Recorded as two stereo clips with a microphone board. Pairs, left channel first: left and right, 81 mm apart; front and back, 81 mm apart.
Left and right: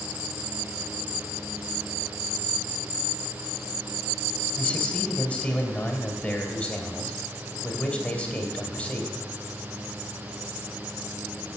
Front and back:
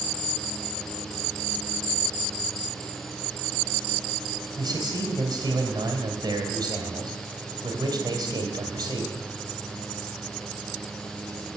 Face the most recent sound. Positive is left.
turn(degrees=160)